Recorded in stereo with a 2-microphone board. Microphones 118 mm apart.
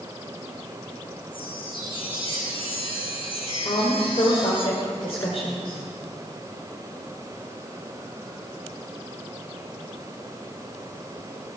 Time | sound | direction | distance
1.3 | a chime | 45° left (ahead or behind) | 4.5 m
3.6 | a woman speaking | 55° left (ahead or behind) | 2 m